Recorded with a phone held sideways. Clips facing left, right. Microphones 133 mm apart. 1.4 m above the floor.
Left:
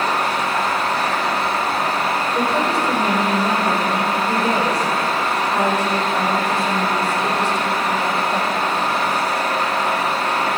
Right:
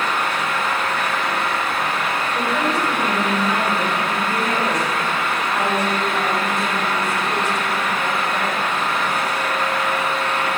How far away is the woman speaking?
About 7 m.